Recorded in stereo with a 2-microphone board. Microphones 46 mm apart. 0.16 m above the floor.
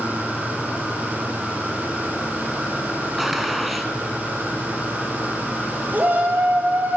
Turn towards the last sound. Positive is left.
turn(degrees=-40)  # may be behind; listen again after turning